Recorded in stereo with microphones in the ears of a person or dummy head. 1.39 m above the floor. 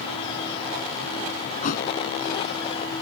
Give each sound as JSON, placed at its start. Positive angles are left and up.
{"t": 1.6, "sound": "a thud", "side_deg": 50}